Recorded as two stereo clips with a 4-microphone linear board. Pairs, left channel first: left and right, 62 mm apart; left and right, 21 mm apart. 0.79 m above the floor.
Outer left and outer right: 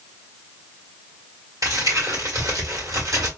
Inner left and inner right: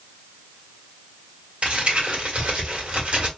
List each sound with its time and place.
1.6 s crumpling: 60° right (ahead or behind), 1.6 m